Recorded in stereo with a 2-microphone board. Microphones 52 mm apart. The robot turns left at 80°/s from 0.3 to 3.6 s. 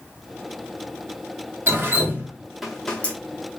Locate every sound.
1.7 s dripping: 50° right (ahead or behind), 0.8 m; by 3.1 s 25° left (ahead or behind), 0.8 m